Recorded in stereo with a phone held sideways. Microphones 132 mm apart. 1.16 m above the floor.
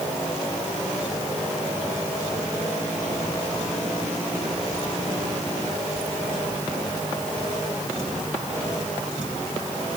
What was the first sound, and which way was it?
Only background noise.